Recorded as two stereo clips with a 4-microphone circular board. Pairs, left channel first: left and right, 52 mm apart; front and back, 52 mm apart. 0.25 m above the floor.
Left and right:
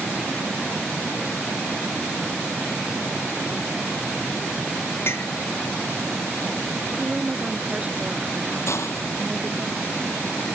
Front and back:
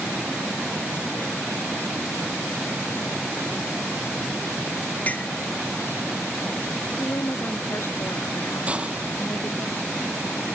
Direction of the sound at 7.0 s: 25° right.